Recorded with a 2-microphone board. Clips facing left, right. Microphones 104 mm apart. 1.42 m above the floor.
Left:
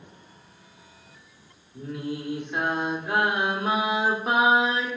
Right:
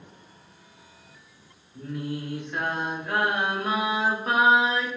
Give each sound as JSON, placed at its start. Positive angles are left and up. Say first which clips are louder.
{"t": 1.8, "sound": "singing", "louder": "even", "side_deg": 15, "distance_m": 0.9}